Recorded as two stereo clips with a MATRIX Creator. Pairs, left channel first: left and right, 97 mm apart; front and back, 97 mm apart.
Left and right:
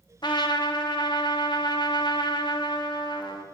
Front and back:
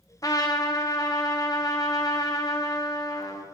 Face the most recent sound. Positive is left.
turn(degrees=50)